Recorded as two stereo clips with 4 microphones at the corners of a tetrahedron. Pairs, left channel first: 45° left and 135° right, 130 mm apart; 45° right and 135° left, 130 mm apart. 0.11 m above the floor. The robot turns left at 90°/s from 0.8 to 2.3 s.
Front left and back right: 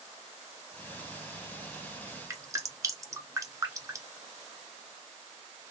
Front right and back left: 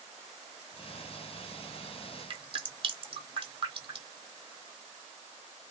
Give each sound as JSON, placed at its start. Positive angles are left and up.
{"t": 2.3, "sound": "dripping", "azimuth_deg": 165, "distance_m": 0.9}